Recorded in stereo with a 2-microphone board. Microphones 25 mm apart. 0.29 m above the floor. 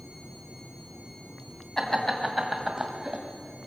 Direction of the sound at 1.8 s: 15° left (ahead or behind).